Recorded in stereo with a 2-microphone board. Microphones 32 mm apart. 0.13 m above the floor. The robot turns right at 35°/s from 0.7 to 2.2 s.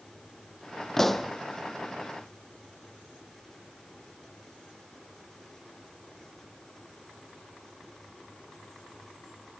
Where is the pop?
15° left (ahead or behind), 0.9 m; by 1.3 s centre (ahead or behind), 0.9 m.